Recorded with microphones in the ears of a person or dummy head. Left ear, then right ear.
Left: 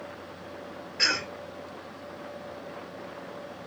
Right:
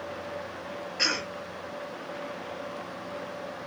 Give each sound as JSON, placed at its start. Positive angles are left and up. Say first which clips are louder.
{"t": 1.0, "sound": "a cough", "louder": "left 2 dB", "side_deg": -15, "distance_m": 2.5}